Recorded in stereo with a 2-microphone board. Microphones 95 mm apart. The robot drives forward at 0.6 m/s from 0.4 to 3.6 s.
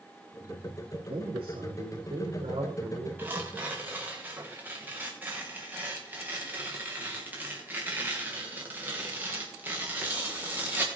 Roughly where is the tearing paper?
Right.